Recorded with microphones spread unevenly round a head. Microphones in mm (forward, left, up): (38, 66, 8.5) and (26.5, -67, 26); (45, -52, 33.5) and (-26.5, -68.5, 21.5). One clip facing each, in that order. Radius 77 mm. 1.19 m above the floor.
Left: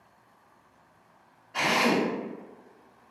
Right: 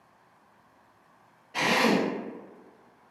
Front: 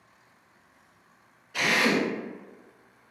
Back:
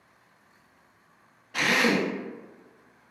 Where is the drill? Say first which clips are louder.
Right 1 dB, back 1 dB; 165° right, 1.0 m.